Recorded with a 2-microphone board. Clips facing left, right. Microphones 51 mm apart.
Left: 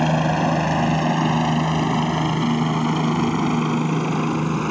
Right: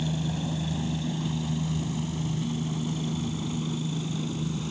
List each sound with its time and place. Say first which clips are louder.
0.0 s a helicopter: left 12 dB; 70° left (ahead or behind); by 4.7 s 65° left (ahead or behind)